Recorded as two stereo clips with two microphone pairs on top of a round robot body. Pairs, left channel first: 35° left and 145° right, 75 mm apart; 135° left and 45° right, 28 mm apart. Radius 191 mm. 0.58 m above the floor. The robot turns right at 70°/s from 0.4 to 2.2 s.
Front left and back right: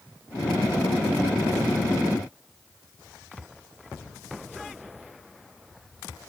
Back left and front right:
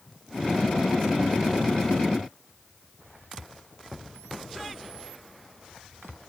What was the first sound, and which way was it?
Only background noise.